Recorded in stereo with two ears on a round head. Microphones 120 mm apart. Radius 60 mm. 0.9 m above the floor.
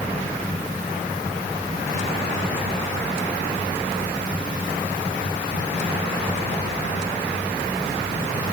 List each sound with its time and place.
Only background noise.